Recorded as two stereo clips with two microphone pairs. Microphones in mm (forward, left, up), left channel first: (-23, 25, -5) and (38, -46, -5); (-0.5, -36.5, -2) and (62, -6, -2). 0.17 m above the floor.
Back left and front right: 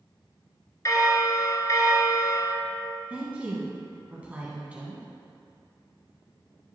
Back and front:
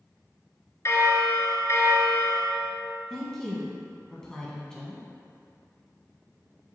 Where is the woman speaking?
90° right, 1.1 m.